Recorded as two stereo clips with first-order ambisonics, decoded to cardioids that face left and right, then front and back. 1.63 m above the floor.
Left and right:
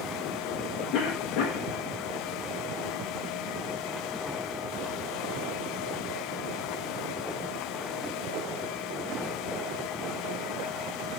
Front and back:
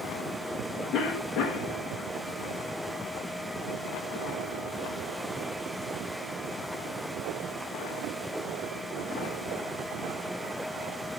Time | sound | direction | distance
0.9 | a cough | 50° left | 1.8 m